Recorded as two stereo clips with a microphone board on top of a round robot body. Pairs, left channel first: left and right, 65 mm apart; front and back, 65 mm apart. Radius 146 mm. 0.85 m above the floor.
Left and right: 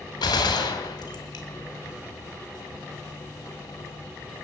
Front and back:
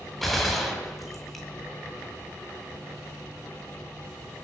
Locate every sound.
0.2 s a gunshot: 90° left, 1.8 m